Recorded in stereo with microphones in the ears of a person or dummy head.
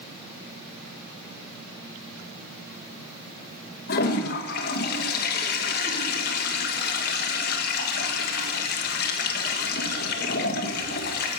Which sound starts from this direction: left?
A toilet flushing, at 3.9 s.